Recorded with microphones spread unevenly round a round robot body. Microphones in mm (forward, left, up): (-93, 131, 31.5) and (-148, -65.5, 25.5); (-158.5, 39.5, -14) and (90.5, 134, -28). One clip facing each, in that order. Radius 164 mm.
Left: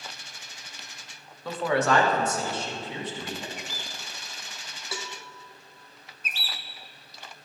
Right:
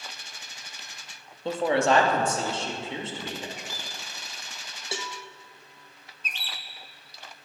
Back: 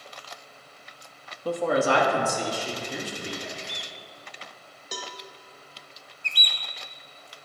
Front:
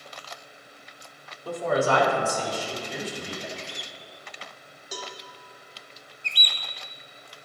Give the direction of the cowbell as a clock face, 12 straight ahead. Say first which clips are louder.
Right 2 dB, front 1 dB; 6 o'clock.